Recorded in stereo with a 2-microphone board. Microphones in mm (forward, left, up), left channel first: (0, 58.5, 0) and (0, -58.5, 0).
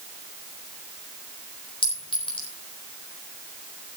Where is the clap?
I don't hear a clap.